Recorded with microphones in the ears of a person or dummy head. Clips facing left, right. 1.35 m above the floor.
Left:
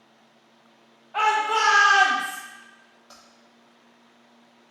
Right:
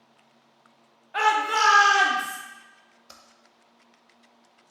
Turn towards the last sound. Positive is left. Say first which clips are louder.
# left 1 dB
turn(degrees=-35)  # may be behind; listen again after turning